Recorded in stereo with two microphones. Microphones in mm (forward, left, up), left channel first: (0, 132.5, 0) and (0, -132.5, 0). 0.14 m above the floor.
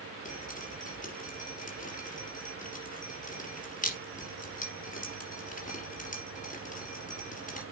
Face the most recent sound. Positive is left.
turn(degrees=30)  # may be behind; listen again after turning